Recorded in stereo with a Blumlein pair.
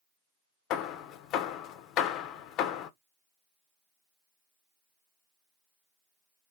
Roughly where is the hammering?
Ahead left.